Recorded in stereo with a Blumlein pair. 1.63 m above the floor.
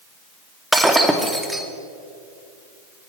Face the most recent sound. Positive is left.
turn(degrees=-5)